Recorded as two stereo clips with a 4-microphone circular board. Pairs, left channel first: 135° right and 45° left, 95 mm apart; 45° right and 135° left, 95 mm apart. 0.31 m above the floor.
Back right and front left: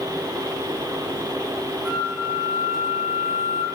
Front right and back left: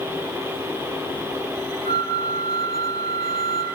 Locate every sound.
1.9 s a flute: 130° left, 0.7 m